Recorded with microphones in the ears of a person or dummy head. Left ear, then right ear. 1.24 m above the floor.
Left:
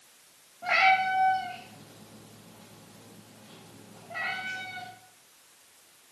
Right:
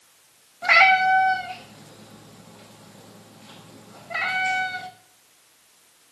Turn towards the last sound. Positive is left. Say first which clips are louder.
# right 7 dB
turn(degrees=-60)  # may be behind; listen again after turning